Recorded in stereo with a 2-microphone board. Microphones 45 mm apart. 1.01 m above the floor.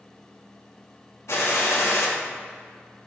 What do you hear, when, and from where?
1.3 s a gunshot: 70° left (ahead or behind), 2 m